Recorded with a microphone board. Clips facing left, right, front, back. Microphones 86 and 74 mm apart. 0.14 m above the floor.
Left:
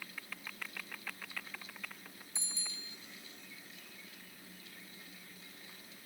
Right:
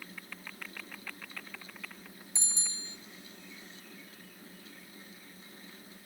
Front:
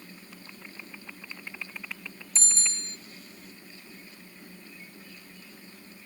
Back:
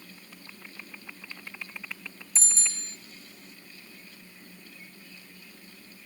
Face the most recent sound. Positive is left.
turn(degrees=-90)